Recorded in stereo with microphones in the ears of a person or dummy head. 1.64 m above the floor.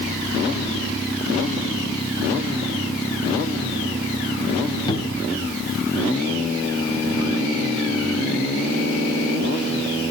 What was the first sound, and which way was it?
A cupboard door, 25° left (ahead or behind).